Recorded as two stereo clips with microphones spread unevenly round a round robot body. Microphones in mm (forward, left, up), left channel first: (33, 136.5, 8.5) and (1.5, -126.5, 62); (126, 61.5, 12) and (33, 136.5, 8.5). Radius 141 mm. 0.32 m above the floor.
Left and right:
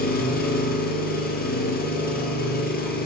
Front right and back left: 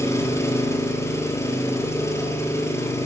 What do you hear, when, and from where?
0.0 s an engine running: 30° left, 4.5 m